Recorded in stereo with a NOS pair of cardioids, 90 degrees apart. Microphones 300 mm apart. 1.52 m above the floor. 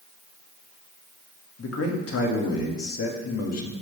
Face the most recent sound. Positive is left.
turn(degrees=55)